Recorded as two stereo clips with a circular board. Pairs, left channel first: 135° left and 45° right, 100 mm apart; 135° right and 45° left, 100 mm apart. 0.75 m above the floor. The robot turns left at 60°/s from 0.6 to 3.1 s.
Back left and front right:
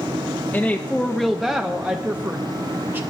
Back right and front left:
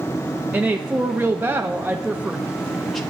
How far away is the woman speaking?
About 0.7 m.